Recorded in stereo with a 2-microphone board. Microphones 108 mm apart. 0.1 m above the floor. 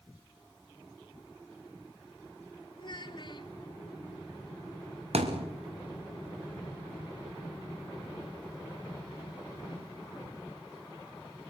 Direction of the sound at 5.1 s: 85° right.